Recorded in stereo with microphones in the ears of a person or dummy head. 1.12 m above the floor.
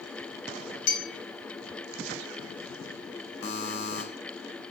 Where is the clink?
80° left, 2.5 m.